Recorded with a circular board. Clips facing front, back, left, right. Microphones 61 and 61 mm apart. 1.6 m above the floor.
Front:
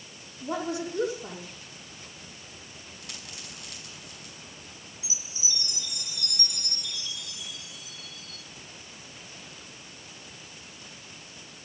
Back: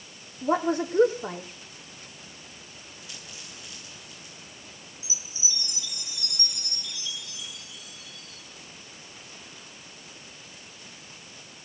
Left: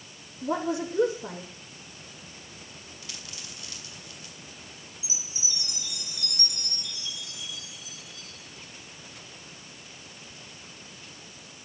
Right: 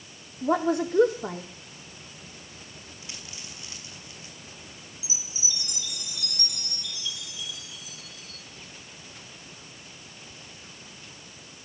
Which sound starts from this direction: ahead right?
A dropped coin, at 3.0 s.